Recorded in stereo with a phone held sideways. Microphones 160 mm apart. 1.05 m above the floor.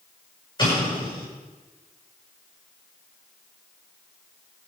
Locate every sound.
0.6 s an explosion: 30° left (ahead or behind), 6.5 m